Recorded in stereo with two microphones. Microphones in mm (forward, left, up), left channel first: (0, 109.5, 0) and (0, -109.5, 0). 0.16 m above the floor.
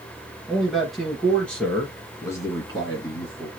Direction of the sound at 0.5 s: Centre (ahead or behind).